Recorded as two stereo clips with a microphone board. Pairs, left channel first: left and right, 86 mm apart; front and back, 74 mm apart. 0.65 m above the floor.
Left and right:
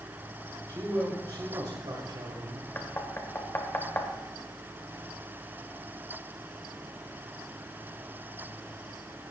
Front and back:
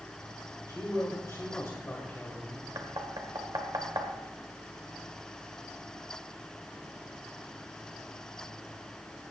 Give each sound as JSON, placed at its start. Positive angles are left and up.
{"t": 0.7, "sound": "a man speaking", "azimuth_deg": -40, "distance_m": 3.0}
{"t": 2.8, "sound": "knocking", "azimuth_deg": 155, "distance_m": 1.4}